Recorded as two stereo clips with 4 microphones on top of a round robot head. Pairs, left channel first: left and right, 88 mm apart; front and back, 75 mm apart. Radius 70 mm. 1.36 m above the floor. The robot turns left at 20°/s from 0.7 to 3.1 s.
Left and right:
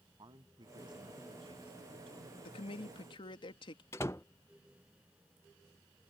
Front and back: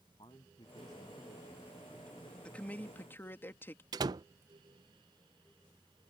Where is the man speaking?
50° right; by 2.4 s 85° right.